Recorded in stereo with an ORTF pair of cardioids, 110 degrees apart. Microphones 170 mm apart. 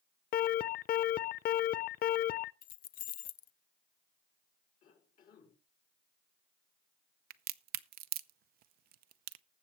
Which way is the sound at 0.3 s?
60° left.